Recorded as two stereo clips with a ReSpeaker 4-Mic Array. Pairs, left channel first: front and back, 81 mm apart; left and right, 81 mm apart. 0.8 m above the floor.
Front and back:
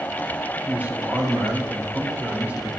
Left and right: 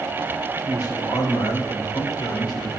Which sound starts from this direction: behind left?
A man speaking, at 0.7 s.